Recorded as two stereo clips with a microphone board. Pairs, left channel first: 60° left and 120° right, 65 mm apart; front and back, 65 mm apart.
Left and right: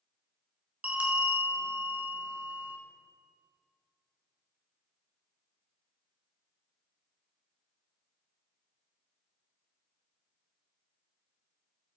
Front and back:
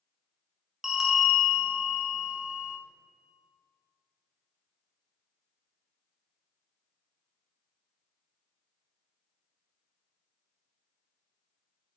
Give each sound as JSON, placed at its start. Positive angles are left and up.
{"t": 0.8, "sound": "a bell", "azimuth_deg": -115, "distance_m": 1.1}